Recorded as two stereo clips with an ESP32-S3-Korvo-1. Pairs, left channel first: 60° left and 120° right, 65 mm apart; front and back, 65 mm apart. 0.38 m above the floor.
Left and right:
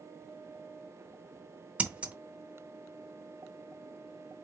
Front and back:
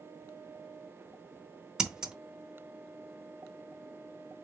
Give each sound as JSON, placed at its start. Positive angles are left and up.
{"t": 1.8, "sound": "scissors", "azimuth_deg": -120, "distance_m": 0.8}